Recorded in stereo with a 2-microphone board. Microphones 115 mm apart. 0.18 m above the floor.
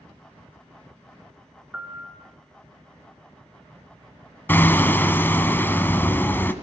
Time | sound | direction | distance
1.7 | a piano | 10° right (ahead or behind) | 2.5 m
4.5 | hammering | 20° left (ahead or behind) | 1.4 m